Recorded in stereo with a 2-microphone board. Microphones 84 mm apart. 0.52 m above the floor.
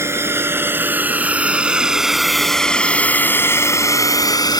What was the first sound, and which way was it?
A drone, 30° right (ahead or behind).